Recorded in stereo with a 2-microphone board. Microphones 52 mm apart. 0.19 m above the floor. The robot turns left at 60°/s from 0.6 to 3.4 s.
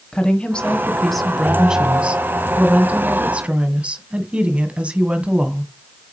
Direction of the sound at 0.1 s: 20° left (ahead or behind).